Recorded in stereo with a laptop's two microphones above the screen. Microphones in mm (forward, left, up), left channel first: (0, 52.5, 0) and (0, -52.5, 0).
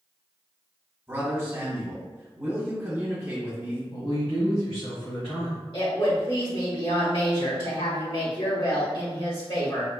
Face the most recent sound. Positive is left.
turn(degrees=55)  # may be behind; listen again after turning